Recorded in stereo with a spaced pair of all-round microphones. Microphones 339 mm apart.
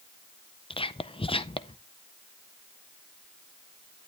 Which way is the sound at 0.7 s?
15° left (ahead or behind).